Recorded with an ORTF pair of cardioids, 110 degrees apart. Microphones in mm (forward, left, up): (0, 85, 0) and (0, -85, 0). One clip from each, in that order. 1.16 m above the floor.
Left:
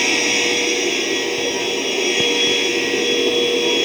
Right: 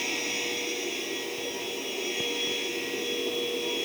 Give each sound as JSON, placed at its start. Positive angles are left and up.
{"t": 0.0, "sound": "a machine running", "azimuth_deg": 70}